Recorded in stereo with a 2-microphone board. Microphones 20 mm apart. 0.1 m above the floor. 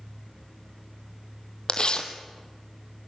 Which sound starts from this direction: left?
Tearing paper, at 1.7 s.